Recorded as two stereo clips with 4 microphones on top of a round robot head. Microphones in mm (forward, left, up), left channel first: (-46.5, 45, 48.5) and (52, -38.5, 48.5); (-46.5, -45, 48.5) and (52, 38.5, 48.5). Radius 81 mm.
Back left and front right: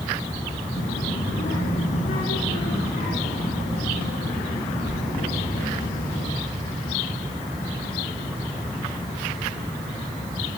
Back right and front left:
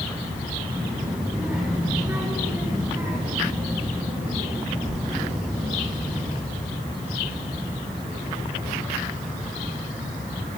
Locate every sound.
0.7 s a child speaking: 120° left, 5.5 m; by 6.3 s 105° left, 8.5 m